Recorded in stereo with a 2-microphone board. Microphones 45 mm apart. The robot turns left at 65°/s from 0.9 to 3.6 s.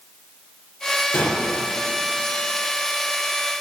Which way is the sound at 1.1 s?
50° left (ahead or behind).